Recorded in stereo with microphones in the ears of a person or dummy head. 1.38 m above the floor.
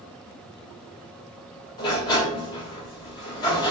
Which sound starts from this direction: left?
A sliding door, at 1.8 s.